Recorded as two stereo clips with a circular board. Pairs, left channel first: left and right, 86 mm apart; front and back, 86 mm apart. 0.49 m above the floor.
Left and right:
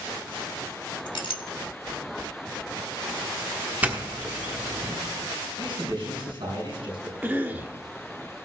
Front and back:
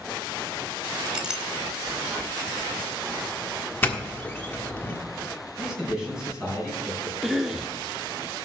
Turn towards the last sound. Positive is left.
turn(degrees=-105)